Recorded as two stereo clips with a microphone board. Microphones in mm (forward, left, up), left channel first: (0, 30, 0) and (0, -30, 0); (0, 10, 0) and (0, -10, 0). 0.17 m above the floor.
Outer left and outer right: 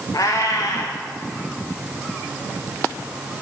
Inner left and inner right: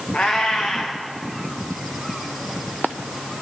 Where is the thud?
I don't hear a thud.